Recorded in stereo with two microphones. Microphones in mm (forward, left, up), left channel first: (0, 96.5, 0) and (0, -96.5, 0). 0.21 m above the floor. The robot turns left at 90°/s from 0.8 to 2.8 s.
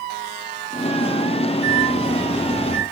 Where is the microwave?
140° right, 1.6 m; by 2.8 s 115° left, 1.6 m.